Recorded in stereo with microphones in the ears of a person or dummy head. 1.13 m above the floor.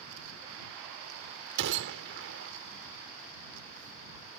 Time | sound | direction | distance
1.6 | a gunshot | 65° right (ahead or behind) | ?